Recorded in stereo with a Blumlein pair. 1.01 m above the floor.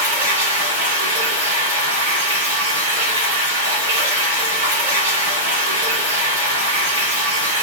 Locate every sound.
0.0 s running water: 60° right, 1.7 m